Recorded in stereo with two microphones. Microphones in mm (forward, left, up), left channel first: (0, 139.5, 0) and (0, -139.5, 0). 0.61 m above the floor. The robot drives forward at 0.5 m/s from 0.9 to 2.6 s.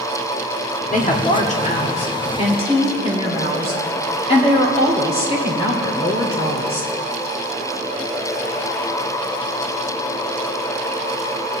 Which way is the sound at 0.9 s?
30° left (ahead or behind).